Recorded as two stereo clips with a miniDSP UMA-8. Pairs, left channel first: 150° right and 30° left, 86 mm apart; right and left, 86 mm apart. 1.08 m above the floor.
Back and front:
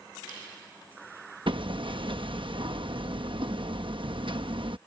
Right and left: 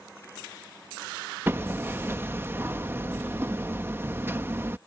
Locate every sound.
1.5 s hammering: 25° left